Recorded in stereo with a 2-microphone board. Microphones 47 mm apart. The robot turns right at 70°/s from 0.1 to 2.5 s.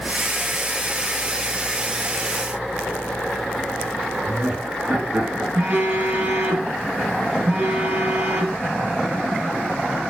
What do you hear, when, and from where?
4.2 s laughter: 55° right (ahead or behind), 5 m
5.5 s a phone buzzing: 45° right (ahead or behind), 3.5 m